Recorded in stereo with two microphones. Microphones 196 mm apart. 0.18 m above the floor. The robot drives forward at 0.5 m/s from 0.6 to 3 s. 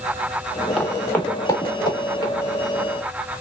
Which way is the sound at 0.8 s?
Centre (ahead or behind).